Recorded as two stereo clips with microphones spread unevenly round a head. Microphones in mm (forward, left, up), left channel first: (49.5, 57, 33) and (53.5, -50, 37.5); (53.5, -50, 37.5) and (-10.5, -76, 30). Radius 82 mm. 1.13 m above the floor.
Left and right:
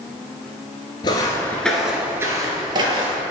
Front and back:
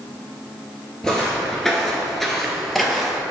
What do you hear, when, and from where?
1.0 s footsteps: 90° left, 1.2 m; by 3.2 s 65° right, 1.8 m